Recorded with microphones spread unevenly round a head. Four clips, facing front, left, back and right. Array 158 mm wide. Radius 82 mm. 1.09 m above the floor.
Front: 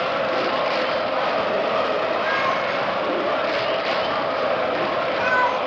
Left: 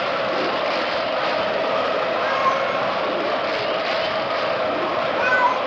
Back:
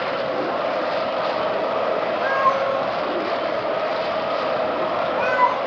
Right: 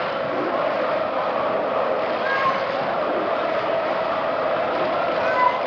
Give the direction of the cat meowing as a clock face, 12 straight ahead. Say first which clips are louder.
Left 1 dB, back 3 dB; 6 o'clock.